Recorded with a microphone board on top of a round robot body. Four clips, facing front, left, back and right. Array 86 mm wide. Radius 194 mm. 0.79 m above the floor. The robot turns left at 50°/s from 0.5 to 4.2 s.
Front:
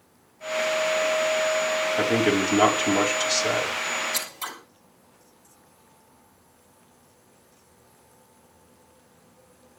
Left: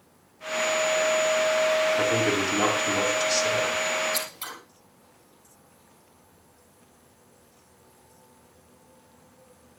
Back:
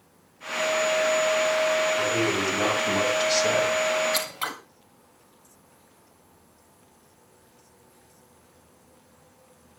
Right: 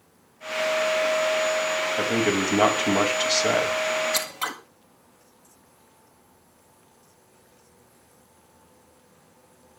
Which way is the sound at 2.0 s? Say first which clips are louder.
Even, front 3 dB; 20° right.